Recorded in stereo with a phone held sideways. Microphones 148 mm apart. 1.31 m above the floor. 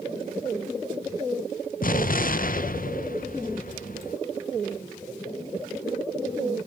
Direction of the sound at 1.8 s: 65° left (ahead or behind).